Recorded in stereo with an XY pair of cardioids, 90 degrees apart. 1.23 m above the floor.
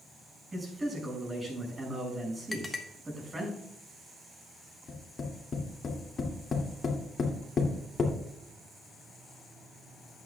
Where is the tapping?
50° left, 2.5 m.